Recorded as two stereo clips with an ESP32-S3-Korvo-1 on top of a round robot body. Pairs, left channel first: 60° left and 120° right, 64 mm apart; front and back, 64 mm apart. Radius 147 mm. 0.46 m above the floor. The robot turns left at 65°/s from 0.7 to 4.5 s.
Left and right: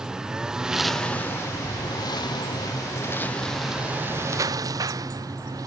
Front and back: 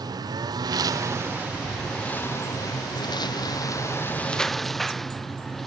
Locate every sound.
0.0 s a lawn mower: 160° left; by 5.7 s 85° right